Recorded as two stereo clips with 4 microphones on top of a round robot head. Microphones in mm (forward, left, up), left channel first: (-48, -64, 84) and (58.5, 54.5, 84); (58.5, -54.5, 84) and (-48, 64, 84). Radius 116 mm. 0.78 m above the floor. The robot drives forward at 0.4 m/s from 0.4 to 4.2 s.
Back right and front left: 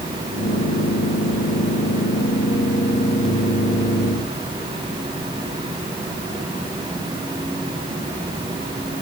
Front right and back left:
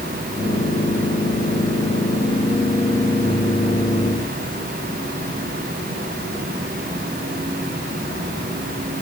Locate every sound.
Only background noise.